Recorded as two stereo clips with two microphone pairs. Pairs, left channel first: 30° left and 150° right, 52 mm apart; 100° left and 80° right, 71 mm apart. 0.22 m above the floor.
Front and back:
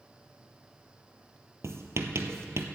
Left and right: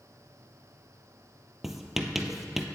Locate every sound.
1.6 s writing: 170° right, 0.8 m